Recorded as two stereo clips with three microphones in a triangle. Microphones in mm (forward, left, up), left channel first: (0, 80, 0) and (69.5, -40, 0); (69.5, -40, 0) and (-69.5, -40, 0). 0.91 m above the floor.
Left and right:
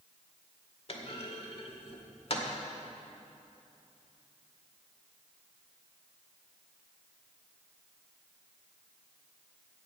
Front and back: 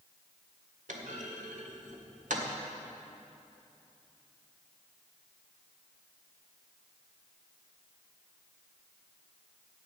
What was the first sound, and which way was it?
A clunk, 160° left.